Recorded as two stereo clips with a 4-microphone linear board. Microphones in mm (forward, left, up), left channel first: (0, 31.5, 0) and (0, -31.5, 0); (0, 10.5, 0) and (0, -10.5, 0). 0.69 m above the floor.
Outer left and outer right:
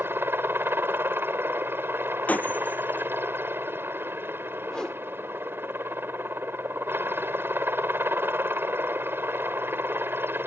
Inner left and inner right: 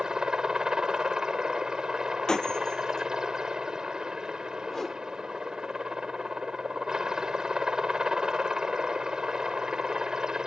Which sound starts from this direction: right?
A helicopter, at 0.0 s.